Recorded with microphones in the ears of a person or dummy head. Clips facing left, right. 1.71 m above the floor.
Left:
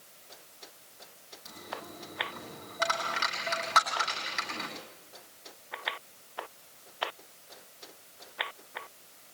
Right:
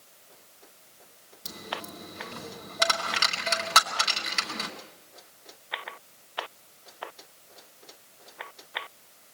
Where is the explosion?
No explosion in this recording.